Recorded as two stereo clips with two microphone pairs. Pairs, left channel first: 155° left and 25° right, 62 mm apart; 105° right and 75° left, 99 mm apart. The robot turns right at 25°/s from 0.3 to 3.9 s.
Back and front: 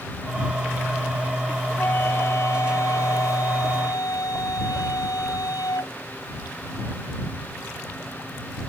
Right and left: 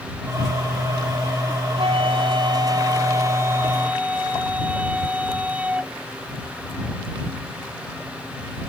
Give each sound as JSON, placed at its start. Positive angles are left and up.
{"t": 1.8, "sound": "a flute", "azimuth_deg": 95}